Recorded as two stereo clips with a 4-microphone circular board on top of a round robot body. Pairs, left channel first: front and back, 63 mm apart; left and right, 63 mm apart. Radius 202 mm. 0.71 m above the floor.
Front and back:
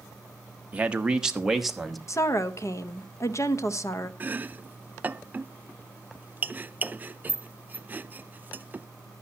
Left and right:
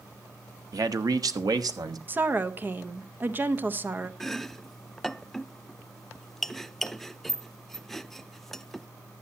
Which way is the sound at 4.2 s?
170° left.